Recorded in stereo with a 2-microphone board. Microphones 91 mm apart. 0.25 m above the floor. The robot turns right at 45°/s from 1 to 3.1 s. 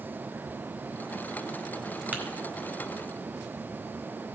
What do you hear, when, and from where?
2.1 s tapping: 15° right (ahead or behind), 2 m